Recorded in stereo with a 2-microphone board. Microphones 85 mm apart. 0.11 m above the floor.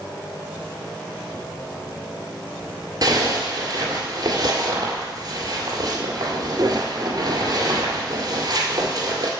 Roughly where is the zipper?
Right.